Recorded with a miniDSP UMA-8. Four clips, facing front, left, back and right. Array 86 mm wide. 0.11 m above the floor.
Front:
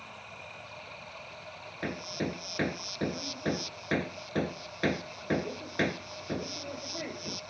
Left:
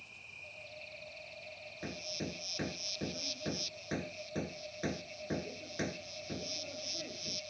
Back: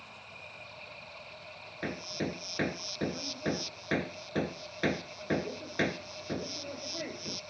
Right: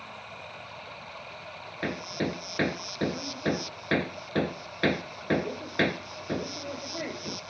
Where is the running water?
75° right.